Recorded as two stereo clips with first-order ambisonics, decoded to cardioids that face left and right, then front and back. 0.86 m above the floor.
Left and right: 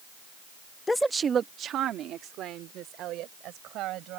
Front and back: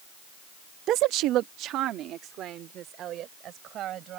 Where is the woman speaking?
155° left; by 4.2 s 130° right.